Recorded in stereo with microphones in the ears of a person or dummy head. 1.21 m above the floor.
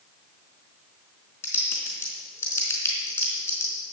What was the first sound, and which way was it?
Typing on a keyboard, 20° left (ahead or behind).